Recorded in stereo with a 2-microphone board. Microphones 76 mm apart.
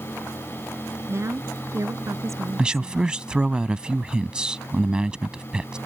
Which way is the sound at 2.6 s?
10° right (ahead or behind).